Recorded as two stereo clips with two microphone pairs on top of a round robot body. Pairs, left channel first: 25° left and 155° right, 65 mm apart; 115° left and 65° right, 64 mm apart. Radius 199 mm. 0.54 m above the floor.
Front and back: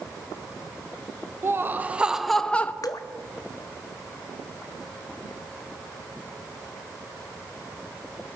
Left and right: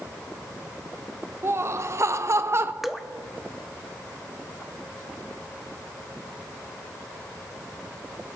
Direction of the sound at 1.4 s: 105° right.